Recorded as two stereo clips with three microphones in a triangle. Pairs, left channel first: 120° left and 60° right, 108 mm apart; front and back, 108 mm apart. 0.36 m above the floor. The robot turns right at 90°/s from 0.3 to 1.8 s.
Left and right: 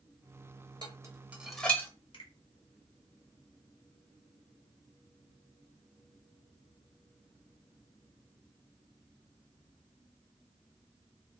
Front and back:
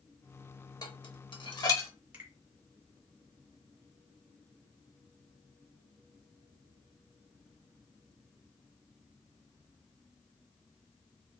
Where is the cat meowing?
No cat meowing in this recording.